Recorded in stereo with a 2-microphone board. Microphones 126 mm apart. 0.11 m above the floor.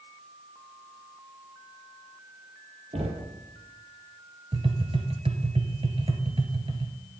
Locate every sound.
2.9 s knocking: 60° right (ahead or behind), 1.9 m
4.5 s tapping: 45° right (ahead or behind), 1.2 m